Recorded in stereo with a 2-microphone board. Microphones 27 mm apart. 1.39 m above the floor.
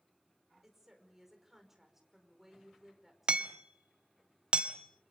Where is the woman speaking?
10° right (ahead or behind), 5.5 m.